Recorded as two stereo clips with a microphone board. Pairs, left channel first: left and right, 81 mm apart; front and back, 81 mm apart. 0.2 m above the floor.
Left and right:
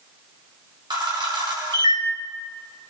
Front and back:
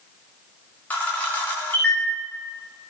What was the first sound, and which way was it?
A camera shutter, 70° right.